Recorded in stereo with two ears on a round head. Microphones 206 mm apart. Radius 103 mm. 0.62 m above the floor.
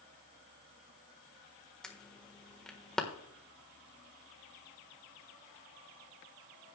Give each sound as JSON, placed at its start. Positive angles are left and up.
{"t": 1.8, "sound": "an alarm", "side_deg": 5, "distance_m": 1.3}